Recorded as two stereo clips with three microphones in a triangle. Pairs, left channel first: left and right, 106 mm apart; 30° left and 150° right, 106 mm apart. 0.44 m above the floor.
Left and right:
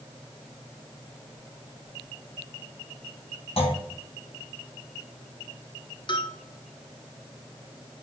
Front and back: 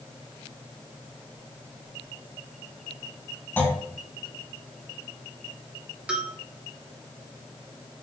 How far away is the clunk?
About 1.8 m.